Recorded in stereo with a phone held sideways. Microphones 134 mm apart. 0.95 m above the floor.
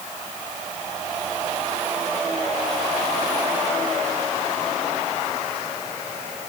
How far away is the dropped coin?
I don't hear a dropped coin.